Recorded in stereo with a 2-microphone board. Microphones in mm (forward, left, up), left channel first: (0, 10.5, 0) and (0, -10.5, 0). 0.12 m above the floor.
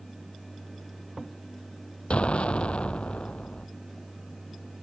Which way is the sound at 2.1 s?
75° left (ahead or behind).